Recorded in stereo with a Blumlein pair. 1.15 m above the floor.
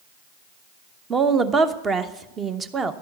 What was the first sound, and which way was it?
A woman speaking, 20° right.